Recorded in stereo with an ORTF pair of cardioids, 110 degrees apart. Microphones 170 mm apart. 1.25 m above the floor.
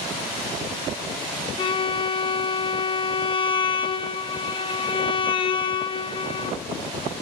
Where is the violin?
30° left, 0.7 m.